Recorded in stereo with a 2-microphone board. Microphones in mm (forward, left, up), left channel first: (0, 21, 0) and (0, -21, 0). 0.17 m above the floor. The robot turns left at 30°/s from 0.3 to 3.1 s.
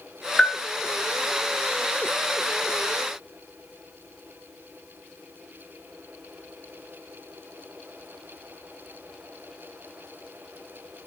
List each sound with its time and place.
0.4 s a bell: 25° left (ahead or behind), 1.1 m; by 0.6 s 15° left (ahead or behind), 1.1 m